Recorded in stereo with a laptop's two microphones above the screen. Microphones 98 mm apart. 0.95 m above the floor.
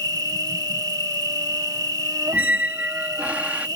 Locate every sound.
0.0 s an insect: 40° right (ahead or behind)
2.3 s a squeak: 15° right (ahead or behind)